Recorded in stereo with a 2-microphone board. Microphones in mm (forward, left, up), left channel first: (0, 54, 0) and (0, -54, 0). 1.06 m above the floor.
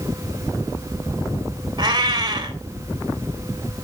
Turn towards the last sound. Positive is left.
turn(degrees=-40)  # may be behind; listen again after turning